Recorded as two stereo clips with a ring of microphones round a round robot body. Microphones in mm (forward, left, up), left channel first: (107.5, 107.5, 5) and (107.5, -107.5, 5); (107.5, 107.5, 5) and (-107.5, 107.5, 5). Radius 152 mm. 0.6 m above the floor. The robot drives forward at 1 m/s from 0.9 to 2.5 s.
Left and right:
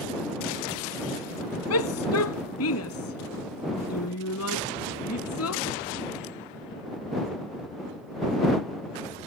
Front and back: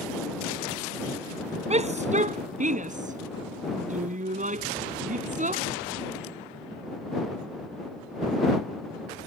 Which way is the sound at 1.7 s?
120° left.